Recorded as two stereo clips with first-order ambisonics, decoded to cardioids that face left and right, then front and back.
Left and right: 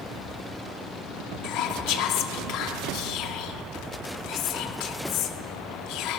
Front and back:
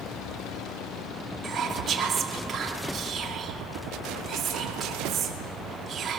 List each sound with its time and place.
1.4 s whispering: 115° left, 2.5 m